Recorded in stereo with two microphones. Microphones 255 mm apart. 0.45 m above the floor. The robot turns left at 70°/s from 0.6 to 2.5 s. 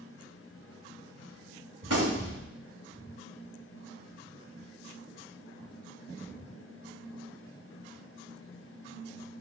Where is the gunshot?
80° right, 1.5 m; by 2.4 s 120° right, 1.5 m.